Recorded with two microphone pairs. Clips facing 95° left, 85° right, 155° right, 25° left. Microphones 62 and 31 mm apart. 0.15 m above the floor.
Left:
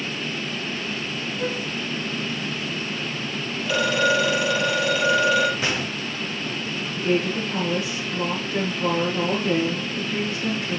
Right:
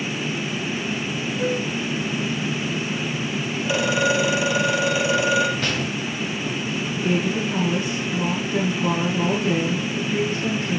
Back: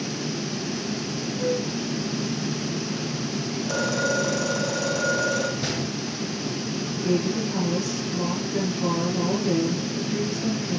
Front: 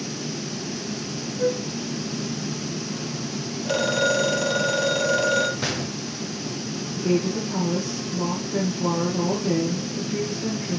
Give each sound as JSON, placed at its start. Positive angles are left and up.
{"t": 1.4, "sound": "a flute", "azimuth_deg": -15, "distance_m": 7.5}
{"t": 3.6, "sound": "a phone ringing", "azimuth_deg": -5, "distance_m": 3.0}
{"t": 5.6, "sound": "a gunshot", "azimuth_deg": 15, "distance_m": 5.5}
{"t": 7.0, "sound": "a woman speaking", "azimuth_deg": 0, "distance_m": 7.0}